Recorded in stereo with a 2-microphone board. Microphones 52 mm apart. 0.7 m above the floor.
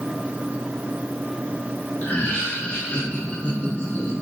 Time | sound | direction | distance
2.0 | laughter | 30° left (ahead or behind) | 0.9 m